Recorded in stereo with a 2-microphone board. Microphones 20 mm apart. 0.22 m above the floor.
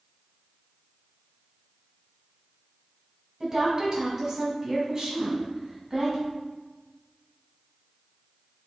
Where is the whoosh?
35° right (ahead or behind), 0.8 m.